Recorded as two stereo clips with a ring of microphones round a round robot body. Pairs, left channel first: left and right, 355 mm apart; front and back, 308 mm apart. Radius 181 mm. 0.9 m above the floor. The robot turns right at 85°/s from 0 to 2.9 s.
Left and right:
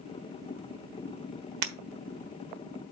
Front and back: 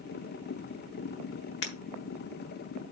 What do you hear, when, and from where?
1.6 s breaking glass: 60° right, 1.3 m; by 1.7 s 50° right, 1.3 m